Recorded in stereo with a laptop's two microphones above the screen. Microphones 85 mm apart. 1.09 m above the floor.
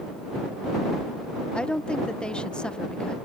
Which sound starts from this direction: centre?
A woman speaking, at 1.5 s.